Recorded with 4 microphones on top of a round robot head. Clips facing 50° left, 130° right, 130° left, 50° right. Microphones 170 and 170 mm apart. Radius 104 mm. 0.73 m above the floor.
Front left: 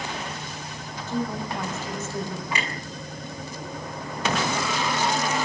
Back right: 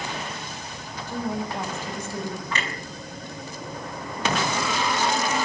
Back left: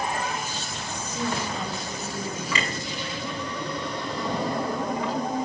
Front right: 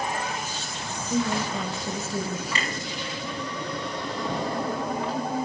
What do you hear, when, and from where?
1.1 s a woman speaking: 55° right, 5.5 m
2.5 s a clunk: 125° left, 6 m